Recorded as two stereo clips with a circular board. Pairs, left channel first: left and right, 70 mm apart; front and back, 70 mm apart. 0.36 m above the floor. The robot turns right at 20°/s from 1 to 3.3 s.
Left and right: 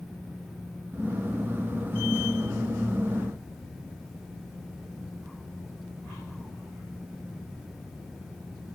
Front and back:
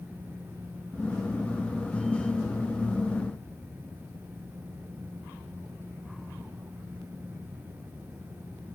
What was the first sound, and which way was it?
Only background noise.